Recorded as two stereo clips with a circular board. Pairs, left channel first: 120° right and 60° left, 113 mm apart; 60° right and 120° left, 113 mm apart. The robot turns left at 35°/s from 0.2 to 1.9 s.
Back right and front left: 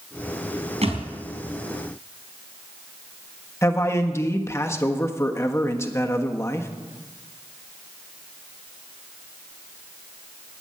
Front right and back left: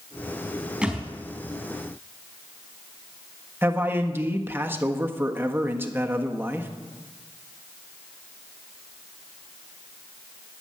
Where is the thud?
40° left, 3.5 m; by 1.0 s 30° left, 3.5 m.